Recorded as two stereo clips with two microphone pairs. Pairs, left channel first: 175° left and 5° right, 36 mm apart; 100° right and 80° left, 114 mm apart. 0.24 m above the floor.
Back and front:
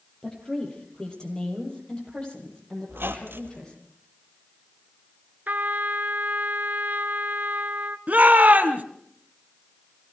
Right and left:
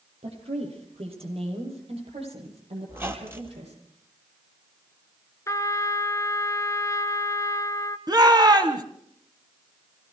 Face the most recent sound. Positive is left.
turn(degrees=35)